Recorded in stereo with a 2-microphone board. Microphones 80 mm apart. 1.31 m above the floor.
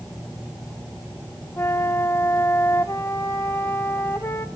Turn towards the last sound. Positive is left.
turn(degrees=35)  # may be behind; listen again after turning